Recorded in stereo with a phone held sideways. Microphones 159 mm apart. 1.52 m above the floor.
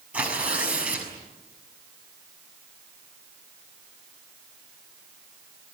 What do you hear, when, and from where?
0.1 s tearing paper: 10° right (ahead or behind), 6.5 m